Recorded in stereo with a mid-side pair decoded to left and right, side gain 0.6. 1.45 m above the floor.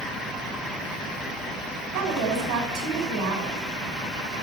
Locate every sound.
1.9 s a woman speaking: 65° right, 7 m